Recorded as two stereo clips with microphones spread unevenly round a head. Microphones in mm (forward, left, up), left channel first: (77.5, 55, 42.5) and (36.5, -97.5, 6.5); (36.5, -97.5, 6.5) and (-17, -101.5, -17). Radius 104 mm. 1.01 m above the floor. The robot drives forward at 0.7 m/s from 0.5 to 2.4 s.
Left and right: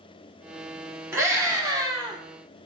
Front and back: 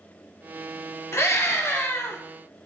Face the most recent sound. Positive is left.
turn(degrees=-45)